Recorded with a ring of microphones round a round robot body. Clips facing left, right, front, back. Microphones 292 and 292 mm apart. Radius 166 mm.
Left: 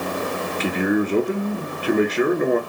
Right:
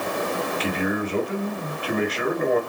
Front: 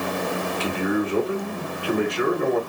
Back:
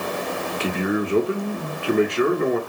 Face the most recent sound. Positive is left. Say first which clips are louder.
# left 8 dB, back 1 dB
turn(degrees=120)